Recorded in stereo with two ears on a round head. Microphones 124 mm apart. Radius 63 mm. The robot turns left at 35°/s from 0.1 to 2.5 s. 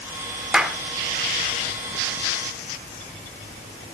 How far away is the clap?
About 1.1 m.